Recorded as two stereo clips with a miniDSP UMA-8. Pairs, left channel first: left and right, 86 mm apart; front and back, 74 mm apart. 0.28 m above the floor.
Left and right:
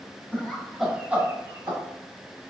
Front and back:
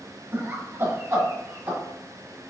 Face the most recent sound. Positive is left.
turn(degrees=-130)